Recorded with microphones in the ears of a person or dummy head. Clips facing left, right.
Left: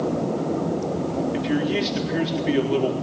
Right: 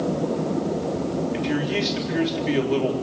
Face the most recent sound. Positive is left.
turn(degrees=0)  # may be behind; listen again after turning